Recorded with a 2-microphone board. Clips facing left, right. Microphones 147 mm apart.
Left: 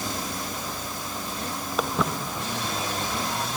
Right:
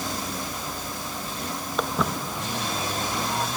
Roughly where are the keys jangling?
I don't hear keys jangling.